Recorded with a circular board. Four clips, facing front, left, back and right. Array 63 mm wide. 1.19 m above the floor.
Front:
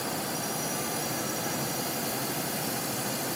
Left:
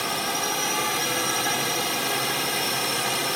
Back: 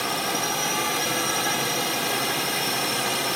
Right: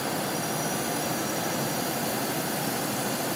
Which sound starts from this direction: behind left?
A drone, at 0.0 s.